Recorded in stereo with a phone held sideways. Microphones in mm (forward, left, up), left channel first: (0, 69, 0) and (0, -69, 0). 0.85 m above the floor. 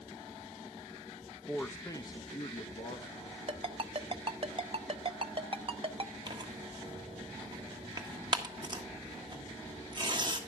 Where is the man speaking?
10° left (ahead or behind), 0.9 m; by 3.3 s 45° left (ahead or behind), 1.3 m.